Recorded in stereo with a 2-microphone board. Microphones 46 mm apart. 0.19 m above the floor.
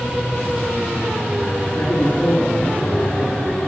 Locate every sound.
1.7 s a man speaking: 50° left (ahead or behind), 2 m; by 3.6 s 15° left (ahead or behind), 1.4 m